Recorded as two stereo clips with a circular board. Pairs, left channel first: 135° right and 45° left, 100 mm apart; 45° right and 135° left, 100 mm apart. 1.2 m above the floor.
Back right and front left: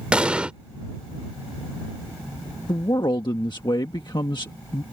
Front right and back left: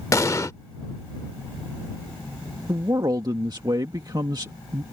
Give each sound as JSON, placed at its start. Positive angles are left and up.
{"t": 0.1, "sound": "an explosion", "azimuth_deg": -25}
{"t": 2.7, "sound": "a man speaking", "azimuth_deg": 180}